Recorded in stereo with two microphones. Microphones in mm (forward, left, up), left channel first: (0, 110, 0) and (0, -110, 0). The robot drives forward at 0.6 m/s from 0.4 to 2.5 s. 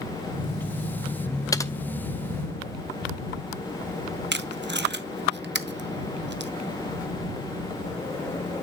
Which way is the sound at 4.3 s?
55° right (ahead or behind).